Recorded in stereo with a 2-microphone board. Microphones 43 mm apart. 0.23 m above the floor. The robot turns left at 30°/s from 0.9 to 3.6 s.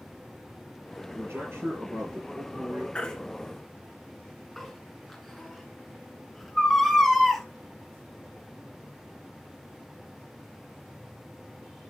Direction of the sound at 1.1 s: 65° right.